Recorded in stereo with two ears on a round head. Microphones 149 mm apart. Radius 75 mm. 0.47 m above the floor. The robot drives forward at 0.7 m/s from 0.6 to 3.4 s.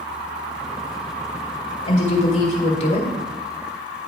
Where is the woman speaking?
40° left (ahead or behind), 1.6 m.